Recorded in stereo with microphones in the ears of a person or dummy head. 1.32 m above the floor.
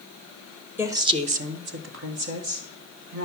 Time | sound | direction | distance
0.8 | a woman speaking | 10° right (ahead or behind) | 1.0 m